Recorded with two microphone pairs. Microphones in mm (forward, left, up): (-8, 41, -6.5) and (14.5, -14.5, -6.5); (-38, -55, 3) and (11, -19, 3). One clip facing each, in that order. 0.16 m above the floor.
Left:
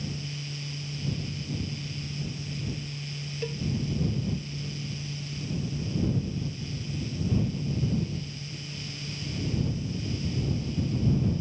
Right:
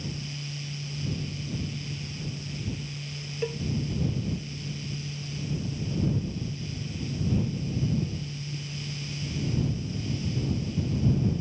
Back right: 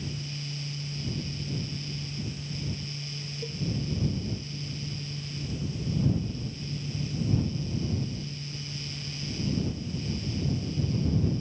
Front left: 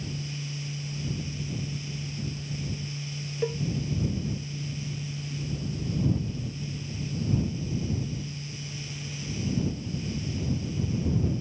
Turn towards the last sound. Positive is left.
turn(degrees=5)